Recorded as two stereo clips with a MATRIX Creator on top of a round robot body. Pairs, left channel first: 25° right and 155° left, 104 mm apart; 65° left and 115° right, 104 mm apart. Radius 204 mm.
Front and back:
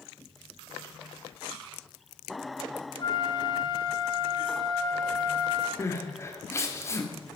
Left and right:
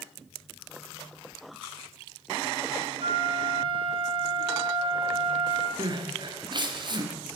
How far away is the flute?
About 1.4 m.